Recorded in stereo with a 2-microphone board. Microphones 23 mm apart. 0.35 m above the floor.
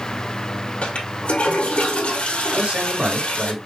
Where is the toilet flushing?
70° left (ahead or behind), 1.8 m.